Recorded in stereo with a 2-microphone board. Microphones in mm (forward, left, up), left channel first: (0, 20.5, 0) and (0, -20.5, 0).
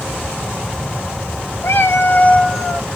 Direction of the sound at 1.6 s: 75° left (ahead or behind).